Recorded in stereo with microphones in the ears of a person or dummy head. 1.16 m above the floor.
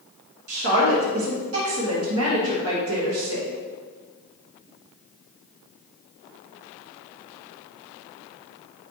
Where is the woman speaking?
70° right (ahead or behind), 1.4 m.